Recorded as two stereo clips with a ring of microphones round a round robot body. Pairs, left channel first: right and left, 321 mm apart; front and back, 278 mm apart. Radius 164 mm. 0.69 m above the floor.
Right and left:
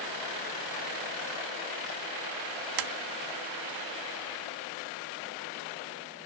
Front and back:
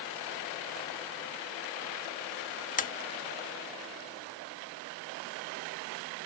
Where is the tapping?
65° left.